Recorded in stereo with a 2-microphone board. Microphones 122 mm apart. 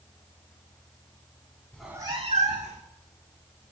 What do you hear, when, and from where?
1.7 s a cat meowing: 10° left (ahead or behind), 0.6 m; by 2.9 s 75° right (ahead or behind), 1.5 m